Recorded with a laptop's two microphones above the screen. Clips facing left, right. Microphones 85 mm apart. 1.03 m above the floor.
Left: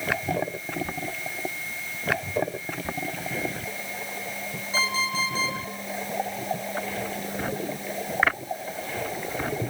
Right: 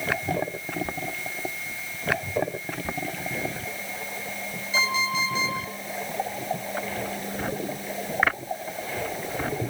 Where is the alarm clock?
40° left (ahead or behind), 8.5 m.